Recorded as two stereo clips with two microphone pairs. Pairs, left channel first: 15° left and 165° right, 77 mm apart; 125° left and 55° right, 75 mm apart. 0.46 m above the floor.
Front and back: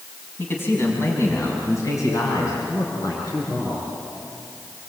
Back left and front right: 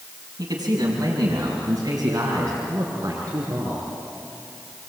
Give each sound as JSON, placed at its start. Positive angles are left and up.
{"t": 0.4, "sound": "a man speaking", "azimuth_deg": -45, "distance_m": 4.5}